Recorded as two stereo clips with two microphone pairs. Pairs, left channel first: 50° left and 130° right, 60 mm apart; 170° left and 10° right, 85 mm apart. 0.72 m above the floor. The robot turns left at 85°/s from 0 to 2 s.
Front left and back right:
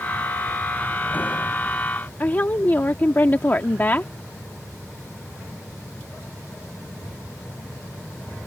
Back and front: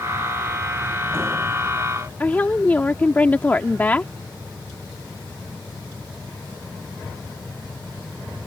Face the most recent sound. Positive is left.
turn(degrees=105)